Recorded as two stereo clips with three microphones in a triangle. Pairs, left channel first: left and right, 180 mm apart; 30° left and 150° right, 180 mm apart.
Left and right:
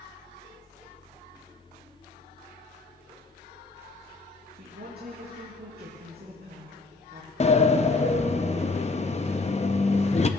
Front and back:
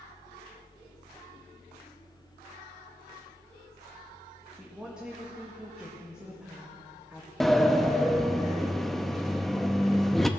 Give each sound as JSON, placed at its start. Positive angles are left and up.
{"t": 4.6, "sound": "a woman speaking", "azimuth_deg": -65, "distance_m": 1.9}
{"t": 7.4, "sound": "a sliding door", "azimuth_deg": 115, "distance_m": 0.6}